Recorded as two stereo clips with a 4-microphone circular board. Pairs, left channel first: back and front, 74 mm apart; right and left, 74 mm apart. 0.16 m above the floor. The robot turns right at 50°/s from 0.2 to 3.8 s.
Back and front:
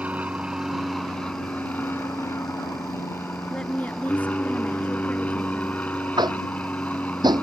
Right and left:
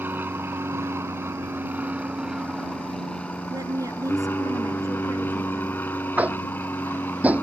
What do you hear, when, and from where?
0.0 s an aircraft: 55° left; by 7.4 s 125° right
3.5 s a woman speaking: 100° left; by 5.8 s 115° left
6.2 s tapping: 20° left